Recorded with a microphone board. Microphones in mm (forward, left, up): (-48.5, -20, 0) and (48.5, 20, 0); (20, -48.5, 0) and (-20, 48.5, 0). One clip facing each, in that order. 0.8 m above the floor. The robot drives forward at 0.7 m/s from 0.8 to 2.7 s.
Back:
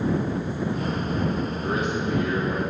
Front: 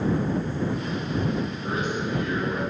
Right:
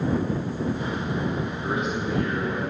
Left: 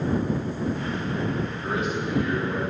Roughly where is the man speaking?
Behind right.